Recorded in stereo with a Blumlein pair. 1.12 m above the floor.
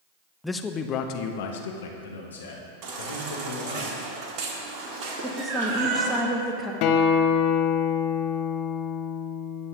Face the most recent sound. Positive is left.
turn(degrees=40)